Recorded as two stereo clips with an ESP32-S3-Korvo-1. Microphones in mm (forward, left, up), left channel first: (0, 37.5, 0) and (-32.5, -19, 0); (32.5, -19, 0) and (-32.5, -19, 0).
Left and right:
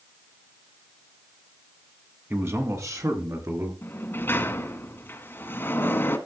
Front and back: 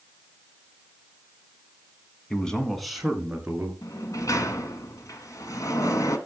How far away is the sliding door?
About 1.3 m.